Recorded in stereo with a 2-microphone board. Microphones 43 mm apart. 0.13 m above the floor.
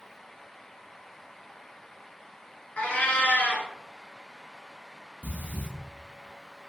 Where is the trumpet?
I don't hear a trumpet.